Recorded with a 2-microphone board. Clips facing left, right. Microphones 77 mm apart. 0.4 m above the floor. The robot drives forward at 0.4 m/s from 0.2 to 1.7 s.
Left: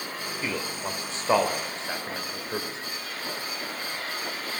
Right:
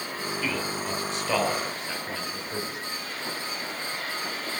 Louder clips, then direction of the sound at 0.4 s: Even; 35° left (ahead or behind).